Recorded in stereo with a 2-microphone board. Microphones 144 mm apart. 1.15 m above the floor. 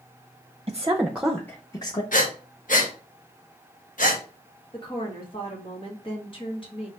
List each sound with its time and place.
0.7 s a woman speaking: 30° right (ahead or behind), 0.6 m; by 2.0 s 30° left (ahead or behind), 0.8 m
2.1 s breathing: 65° left (ahead or behind), 1.1 m
4.7 s a woman speaking: 35° left (ahead or behind), 1.6 m